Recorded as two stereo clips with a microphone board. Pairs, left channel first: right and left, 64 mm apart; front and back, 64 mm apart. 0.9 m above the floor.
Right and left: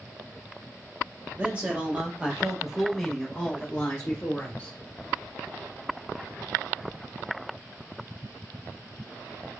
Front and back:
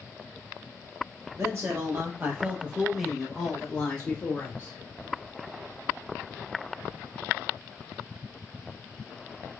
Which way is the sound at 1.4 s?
155° left.